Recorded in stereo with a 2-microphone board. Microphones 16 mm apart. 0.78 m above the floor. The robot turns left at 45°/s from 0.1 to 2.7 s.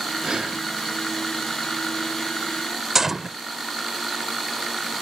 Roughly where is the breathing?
Right.